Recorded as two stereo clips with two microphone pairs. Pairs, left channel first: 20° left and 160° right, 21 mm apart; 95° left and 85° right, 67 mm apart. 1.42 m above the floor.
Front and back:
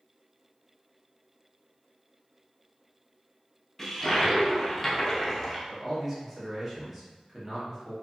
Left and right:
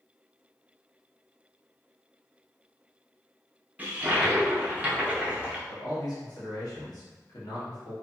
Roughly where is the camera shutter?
I don't hear a camera shutter.